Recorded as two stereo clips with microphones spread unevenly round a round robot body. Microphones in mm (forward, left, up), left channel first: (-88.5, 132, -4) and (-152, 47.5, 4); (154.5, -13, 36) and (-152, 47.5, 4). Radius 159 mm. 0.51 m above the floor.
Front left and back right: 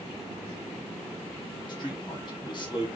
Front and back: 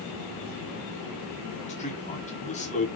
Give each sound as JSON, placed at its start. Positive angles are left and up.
{"t": 1.7, "sound": "a man speaking", "azimuth_deg": 55, "distance_m": 1.9}